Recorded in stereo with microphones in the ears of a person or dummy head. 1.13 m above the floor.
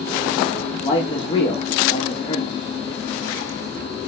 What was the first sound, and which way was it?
A man speaking, 30° left (ahead or behind).